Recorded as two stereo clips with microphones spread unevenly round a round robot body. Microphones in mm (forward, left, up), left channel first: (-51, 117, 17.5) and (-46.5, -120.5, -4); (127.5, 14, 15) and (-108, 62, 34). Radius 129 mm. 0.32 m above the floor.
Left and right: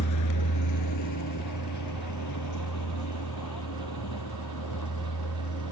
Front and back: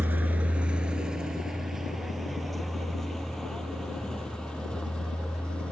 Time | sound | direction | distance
0.0 | a vehicle | 85° left | ?